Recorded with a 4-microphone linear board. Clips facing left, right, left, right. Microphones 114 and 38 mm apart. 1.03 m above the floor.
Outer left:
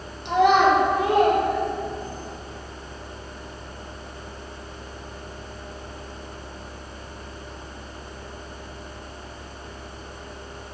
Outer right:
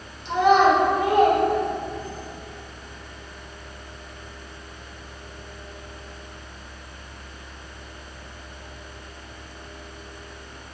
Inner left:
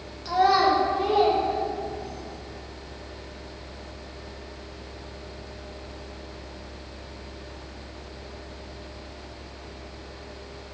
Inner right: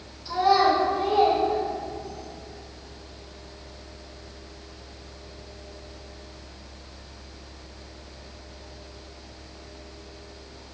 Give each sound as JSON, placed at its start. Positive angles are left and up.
{"t": 0.2, "sound": "a child speaking", "side_deg": 65, "distance_m": 0.7}